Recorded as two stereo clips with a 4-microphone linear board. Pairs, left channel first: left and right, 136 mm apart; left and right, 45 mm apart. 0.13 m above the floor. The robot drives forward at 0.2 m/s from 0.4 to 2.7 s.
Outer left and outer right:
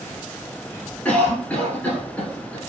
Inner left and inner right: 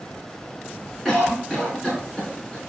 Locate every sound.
1.1 s a cough: 10° left (ahead or behind), 1.0 m